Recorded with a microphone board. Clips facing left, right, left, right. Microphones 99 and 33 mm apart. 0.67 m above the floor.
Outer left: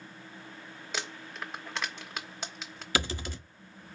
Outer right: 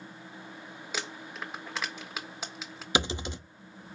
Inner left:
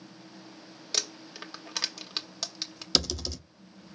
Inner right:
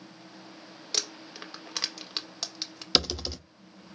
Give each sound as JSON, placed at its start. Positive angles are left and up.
{"t": 0.9, "sound": "crumpling", "side_deg": -5, "distance_m": 1.5}
{"t": 3.0, "sound": "typing on a keyboard", "side_deg": -20, "distance_m": 0.8}